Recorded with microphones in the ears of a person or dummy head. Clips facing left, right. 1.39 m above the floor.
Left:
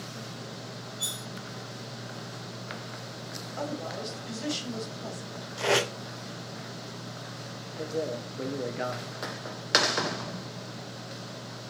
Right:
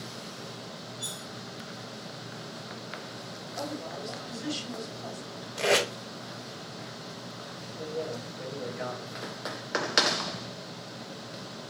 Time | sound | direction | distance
1.0 | cutlery clinking | 75° left (ahead or behind) | 1.6 m
3.6 | a woman speaking | 60° left (ahead or behind) | 2 m
5.6 | tape being pulled | 20° right (ahead or behind) | 1.2 m
7.8 | a man speaking | 55° left (ahead or behind) | 1.0 m